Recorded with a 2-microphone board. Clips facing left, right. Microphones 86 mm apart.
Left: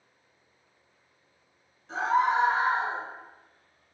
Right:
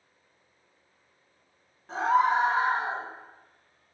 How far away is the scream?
About 1.9 m.